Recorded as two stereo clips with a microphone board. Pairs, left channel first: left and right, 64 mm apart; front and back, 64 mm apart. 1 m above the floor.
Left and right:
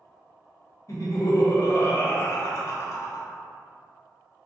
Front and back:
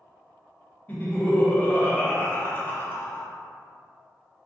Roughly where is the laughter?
Ahead left.